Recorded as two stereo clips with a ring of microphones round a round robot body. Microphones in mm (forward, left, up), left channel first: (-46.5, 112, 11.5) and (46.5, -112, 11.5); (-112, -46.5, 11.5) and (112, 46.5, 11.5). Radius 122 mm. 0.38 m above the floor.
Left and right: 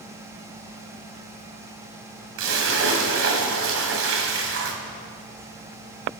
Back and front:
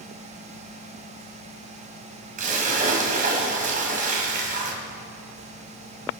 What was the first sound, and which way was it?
A splash, 35° right.